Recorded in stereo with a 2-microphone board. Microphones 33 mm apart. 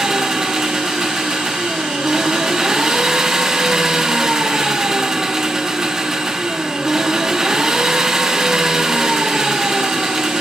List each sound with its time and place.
0.0 s an engine running: 15° right (ahead or behind), 0.8 m